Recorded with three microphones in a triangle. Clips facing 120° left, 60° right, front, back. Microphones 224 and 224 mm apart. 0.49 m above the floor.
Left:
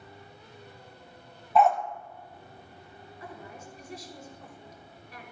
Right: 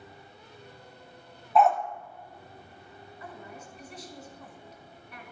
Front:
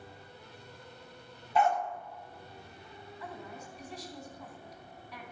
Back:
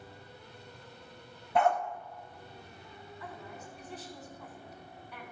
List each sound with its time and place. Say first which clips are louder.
1.6 s a dog barking: even, back 1 dB; 150° right, 0.6 m
3.2 s a woman speaking: left 1 dB, front 2 dB; 95° left, 1.9 m